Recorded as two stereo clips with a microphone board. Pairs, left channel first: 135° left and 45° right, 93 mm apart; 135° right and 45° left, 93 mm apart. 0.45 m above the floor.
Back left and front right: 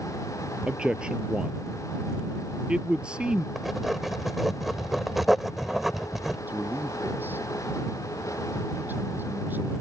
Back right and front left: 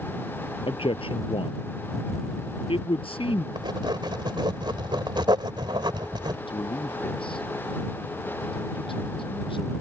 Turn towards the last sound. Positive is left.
turn(degrees=-115)